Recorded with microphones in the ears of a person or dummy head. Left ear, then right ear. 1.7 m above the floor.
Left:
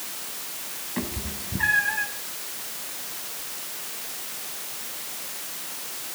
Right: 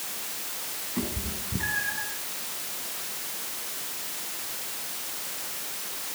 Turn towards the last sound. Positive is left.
turn(degrees=40)  # may be behind; listen again after turning